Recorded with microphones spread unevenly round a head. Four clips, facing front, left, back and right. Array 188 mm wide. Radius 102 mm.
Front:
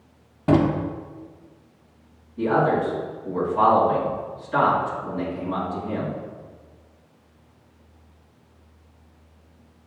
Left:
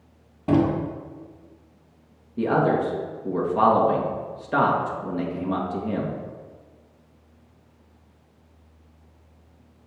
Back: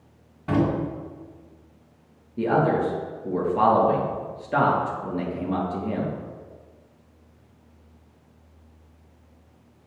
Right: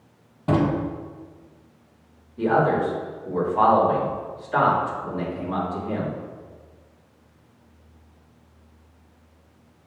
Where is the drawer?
30° right, 1.1 m.